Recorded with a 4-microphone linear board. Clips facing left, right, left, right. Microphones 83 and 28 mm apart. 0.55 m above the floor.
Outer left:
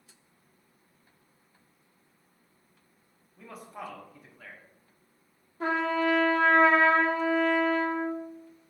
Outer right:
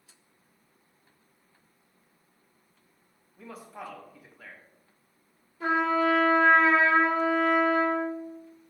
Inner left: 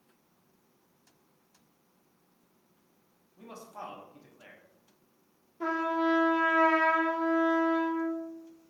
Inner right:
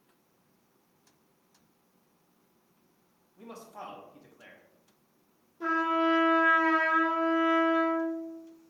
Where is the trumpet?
45° left (ahead or behind), 1.7 m.